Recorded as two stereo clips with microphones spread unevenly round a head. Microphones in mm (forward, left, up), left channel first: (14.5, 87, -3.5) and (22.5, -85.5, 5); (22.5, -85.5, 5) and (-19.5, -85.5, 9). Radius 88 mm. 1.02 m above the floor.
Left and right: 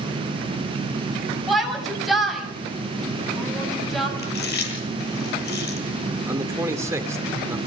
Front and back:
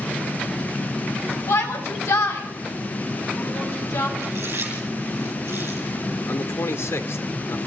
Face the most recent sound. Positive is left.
turn(degrees=-15)